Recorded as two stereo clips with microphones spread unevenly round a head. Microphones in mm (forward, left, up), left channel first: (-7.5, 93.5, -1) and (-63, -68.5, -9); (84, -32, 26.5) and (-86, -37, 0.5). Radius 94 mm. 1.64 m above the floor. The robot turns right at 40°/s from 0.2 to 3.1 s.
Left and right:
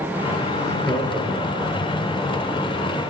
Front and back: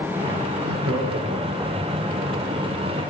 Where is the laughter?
140° left, 3.5 m; by 1.9 s 165° right, 3.5 m.